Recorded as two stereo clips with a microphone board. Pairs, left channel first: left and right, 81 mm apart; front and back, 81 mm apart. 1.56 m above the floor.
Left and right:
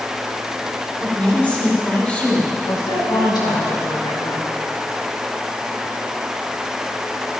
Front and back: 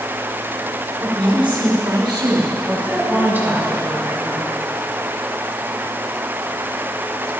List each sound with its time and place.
1.0 s a woman speaking: 165° left, 5 m
2.7 s a woman speaking: 115° left, 5 m